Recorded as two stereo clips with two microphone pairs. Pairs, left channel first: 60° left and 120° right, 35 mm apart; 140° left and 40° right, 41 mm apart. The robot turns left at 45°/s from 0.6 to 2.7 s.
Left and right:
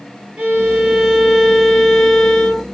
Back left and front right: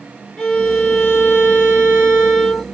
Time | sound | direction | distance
0.4 | a violin | 165° right | 1.5 m